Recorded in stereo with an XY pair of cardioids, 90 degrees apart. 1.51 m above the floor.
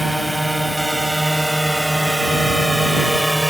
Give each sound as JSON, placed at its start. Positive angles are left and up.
{"t": 0.0, "sound": "a drone", "azimuth_deg": -5}